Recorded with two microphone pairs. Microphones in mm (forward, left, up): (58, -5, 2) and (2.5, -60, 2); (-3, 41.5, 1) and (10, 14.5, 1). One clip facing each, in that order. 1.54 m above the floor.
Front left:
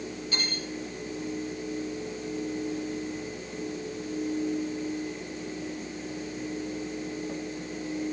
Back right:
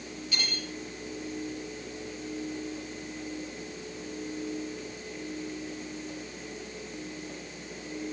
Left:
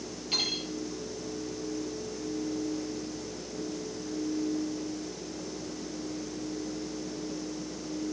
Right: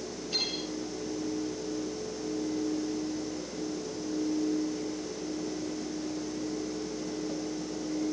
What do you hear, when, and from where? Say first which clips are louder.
0.3 s cutlery clinking: front left 1 dB, left 2 dB; 100° left, 7.5 m